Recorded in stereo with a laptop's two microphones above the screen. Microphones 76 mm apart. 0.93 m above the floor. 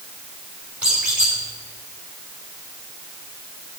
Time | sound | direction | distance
0.8 | a squeak | 15° right (ahead or behind) | 4 m